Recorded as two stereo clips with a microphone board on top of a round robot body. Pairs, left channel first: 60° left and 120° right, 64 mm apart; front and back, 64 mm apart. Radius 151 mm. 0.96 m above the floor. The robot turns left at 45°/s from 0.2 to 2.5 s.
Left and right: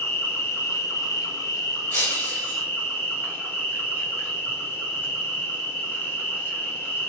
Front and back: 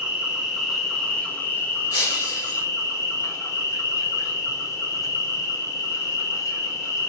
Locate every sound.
0.0 s an insect: 110° left, 1.7 m; by 7.1 s 5° left, 1.7 m
1.9 s breaking glass: 15° left, 1.9 m; by 2.6 s 15° right, 1.9 m